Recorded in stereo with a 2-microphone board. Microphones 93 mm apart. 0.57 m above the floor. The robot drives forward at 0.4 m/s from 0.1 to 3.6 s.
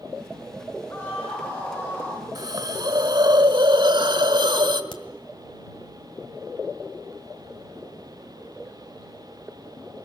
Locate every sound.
0.9 s a scream: 25° left (ahead or behind), 7.5 m
2.4 s a hiss: 50° right (ahead or behind), 1.5 m; by 4.8 s 65° right (ahead or behind), 1.3 m
4.9 s a crack: 65° left (ahead or behind), 1.8 m